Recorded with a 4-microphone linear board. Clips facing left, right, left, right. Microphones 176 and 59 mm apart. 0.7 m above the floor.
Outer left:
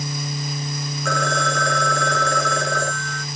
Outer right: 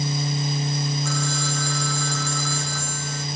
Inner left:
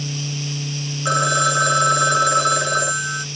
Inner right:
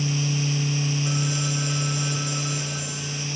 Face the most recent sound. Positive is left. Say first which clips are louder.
# outer left 4 dB, inner left 10 dB
turn(degrees=80)